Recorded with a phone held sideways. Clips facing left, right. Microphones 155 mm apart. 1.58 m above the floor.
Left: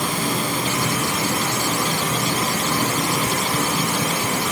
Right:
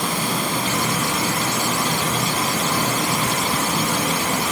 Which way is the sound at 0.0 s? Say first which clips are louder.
Even; 70° right (ahead or behind).